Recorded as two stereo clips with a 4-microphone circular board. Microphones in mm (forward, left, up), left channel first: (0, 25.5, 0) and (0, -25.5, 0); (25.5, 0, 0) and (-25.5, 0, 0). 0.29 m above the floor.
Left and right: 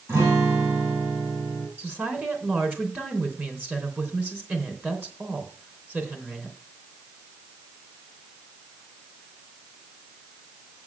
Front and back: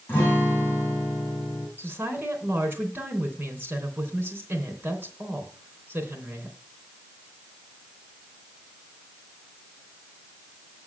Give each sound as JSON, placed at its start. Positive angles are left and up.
{"t": 0.1, "sound": "a guitar", "azimuth_deg": -55, "distance_m": 6.0}
{"t": 1.8, "sound": "a woman speaking", "azimuth_deg": -135, "distance_m": 3.0}